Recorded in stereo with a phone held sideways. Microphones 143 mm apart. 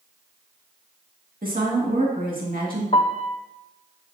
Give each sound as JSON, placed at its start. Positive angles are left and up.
{"t": 1.4, "sound": "a woman speaking", "side_deg": -85, "distance_m": 2.0}
{"t": 2.9, "sound": "a piano", "side_deg": 45, "distance_m": 0.5}